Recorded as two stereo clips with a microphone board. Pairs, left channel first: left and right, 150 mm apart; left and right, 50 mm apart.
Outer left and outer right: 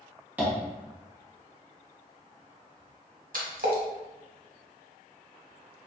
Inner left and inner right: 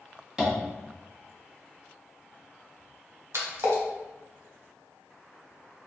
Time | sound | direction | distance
0.4 | tapping | 10° right (ahead or behind) | 1.3 m
3.3 | a splash | 70° right (ahead or behind) | 1.1 m